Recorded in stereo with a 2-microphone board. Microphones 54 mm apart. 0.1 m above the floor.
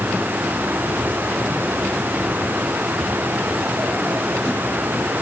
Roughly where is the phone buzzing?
I don't hear a phone buzzing.